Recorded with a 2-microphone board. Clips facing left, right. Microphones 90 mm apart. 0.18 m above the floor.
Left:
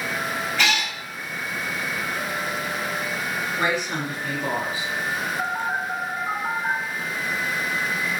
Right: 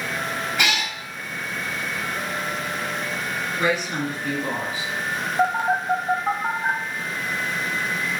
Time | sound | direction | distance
0.6 | a cat meowing | 15° right (ahead or behind) | 0.9 m
3.6 | a woman speaking | 40° left (ahead or behind) | 1.8 m
5.4 | a phone buzzing | 80° right | 0.6 m